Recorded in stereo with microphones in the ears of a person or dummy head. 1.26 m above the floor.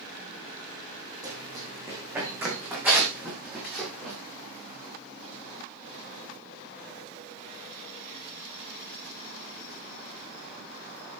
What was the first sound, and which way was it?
Running footsteps, 15° right (ahead or behind).